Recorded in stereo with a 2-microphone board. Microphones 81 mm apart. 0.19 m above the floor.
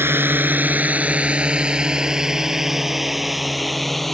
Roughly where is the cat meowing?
No cat meowing in this recording.